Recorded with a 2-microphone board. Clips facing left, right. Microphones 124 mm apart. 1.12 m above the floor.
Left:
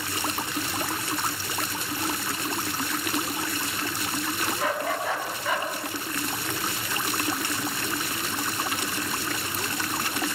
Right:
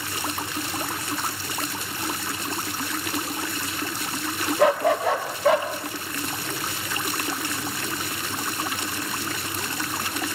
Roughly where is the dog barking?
Right.